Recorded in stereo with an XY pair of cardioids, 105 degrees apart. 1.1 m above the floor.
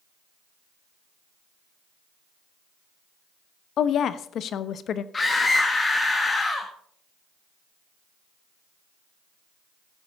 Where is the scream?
30° left, 1.5 m.